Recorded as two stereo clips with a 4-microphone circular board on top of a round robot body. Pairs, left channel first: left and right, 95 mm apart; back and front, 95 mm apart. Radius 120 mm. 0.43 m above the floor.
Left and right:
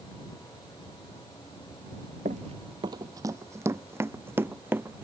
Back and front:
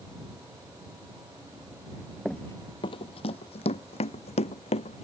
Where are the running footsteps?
90° right; by 5.0 s 160° right.